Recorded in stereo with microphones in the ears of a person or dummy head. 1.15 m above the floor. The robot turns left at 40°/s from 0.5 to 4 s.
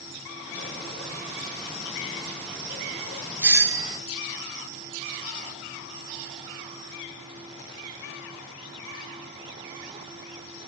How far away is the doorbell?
About 0.6 m.